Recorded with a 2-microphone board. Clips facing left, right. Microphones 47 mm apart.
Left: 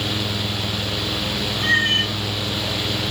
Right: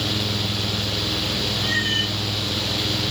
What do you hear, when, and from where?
1.6 s a cat meowing: 70° left (ahead or behind), 6.5 m